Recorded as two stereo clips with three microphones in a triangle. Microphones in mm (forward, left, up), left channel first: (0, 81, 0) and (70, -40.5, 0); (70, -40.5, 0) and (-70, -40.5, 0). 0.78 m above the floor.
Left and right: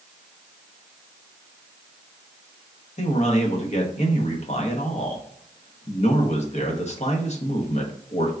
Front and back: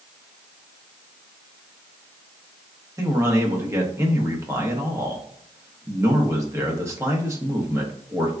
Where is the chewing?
I don't hear chewing.